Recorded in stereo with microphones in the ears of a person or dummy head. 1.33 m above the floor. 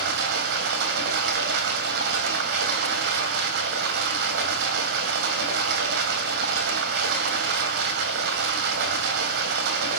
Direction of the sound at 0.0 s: 70° right (ahead or behind).